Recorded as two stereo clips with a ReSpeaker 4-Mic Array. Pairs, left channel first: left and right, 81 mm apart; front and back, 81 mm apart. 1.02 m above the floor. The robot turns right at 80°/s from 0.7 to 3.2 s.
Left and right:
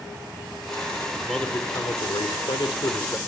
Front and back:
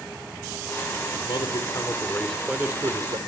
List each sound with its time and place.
1.1 s a man speaking: 10° right, 2.5 m; by 3.2 s 155° left, 2.5 m